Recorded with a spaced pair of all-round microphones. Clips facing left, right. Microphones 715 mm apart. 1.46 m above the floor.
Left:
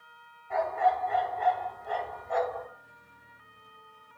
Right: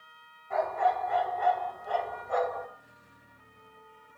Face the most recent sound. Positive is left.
turn(degrees=30)  # may be behind; listen again after turning